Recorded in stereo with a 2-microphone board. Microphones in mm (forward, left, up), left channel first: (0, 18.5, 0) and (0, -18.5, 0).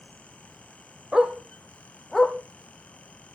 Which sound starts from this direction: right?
A dog barking, at 1.1 s.